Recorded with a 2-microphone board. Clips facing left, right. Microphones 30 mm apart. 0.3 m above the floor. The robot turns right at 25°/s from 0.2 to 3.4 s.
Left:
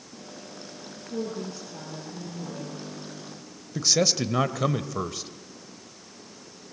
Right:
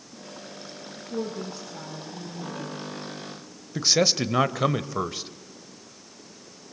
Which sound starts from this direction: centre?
A man speaking, at 3.8 s.